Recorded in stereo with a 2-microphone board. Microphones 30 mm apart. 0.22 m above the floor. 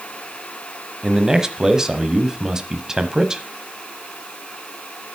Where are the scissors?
I don't hear scissors.